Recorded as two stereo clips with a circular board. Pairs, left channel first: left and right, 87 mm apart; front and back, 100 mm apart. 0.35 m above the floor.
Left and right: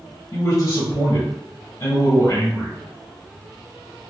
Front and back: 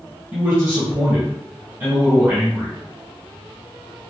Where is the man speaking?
100° left, 1.6 m.